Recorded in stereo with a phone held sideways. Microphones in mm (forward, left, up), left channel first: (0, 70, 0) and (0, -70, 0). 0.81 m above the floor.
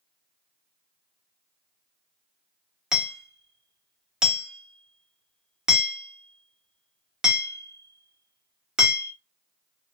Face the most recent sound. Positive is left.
turn(degrees=-5)  # may be behind; listen again after turning